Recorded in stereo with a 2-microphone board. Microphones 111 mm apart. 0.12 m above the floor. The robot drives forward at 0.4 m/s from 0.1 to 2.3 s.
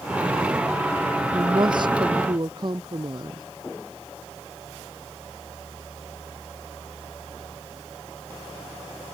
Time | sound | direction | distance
1.3 | a woman speaking | 45° right (ahead or behind) | ?